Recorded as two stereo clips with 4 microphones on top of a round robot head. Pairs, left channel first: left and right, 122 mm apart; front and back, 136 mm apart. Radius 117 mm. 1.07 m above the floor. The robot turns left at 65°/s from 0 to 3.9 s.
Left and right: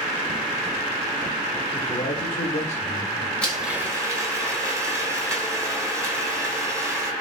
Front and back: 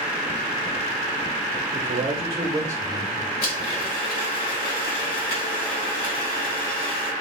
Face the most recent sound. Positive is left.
turn(degrees=-20)